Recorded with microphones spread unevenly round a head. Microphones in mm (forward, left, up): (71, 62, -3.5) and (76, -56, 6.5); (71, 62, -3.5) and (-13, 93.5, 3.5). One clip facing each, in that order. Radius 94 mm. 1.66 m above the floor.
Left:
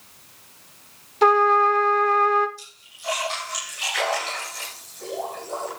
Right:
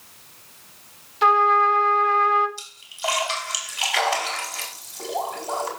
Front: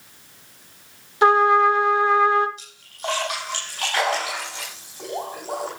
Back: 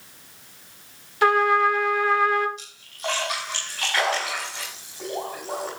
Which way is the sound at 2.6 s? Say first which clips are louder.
Right 12 dB, even; 90° right.